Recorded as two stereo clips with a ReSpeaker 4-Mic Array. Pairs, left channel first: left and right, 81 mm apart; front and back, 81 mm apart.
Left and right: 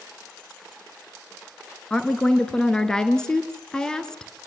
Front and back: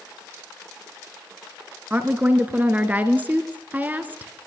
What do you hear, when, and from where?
1.9 s a woman speaking: 155° left, 1.4 m